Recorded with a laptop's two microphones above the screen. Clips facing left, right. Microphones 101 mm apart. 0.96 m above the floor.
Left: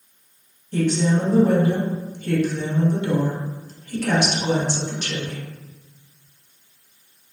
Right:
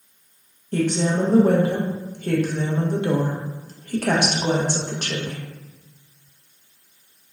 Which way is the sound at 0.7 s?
50° right (ahead or behind).